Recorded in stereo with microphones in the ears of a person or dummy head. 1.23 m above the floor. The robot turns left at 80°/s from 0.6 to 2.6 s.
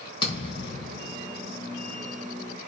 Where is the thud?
35° left, 5 m; by 1.5 s 35° right, 5 m.